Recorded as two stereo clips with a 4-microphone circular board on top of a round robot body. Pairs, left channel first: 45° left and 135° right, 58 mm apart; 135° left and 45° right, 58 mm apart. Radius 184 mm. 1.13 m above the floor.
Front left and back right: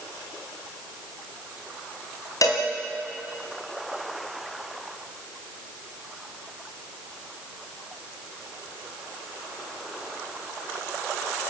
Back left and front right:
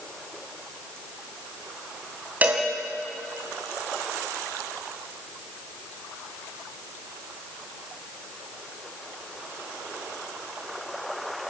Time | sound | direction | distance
2.4 | a cowbell | 20° left | 1.7 m